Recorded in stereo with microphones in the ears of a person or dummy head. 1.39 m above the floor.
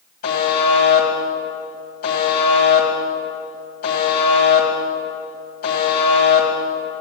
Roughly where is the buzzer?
Left.